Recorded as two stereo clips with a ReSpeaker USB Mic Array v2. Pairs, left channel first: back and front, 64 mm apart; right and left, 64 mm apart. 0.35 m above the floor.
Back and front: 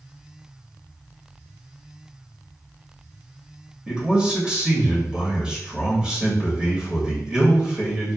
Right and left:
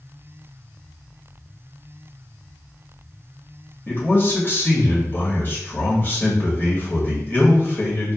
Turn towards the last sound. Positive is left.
turn(degrees=-65)